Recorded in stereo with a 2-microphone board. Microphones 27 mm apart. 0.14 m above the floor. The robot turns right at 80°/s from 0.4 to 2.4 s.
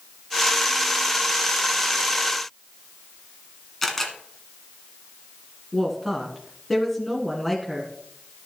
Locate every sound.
3.8 s a camera shutter: 10° left (ahead or behind), 1.6 m
5.7 s a woman speaking: 5° left (ahead or behind), 1.8 m